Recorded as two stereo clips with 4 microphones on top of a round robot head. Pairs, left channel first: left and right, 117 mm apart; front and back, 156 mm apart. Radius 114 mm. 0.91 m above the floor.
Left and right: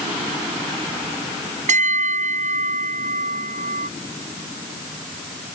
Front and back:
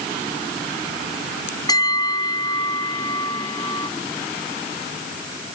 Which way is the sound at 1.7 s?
70° right.